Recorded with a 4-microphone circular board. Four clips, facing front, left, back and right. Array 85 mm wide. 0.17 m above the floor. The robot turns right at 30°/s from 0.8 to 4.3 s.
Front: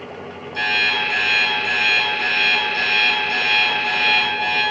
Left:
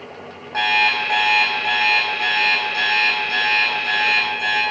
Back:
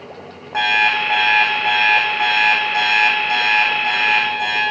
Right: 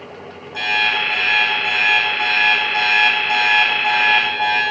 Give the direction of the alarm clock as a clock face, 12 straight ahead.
7 o'clock.